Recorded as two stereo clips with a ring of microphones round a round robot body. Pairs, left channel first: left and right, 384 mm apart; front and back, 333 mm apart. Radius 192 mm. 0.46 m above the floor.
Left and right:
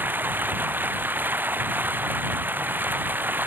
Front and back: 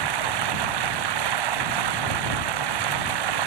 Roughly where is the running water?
Behind.